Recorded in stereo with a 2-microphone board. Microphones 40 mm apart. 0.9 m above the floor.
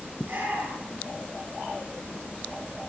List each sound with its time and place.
0.2 s a shout: 55° right (ahead or behind), 8.5 m